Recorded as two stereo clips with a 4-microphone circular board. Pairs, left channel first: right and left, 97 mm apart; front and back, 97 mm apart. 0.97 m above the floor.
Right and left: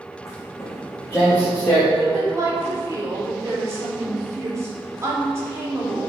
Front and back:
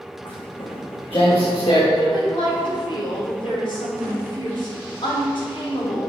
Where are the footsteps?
35° right, 3.5 m; by 1.8 s 20° right, 5 m.